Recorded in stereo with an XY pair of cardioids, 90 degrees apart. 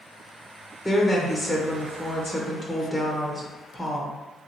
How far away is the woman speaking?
About 0.9 m.